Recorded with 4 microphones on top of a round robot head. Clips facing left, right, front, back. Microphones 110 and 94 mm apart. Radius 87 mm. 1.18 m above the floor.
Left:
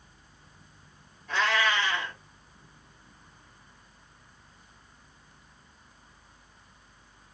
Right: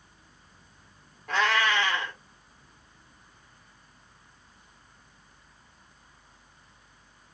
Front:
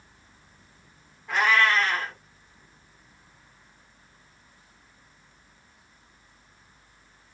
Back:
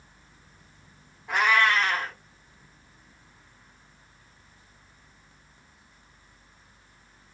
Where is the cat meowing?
95° right, 1.1 m.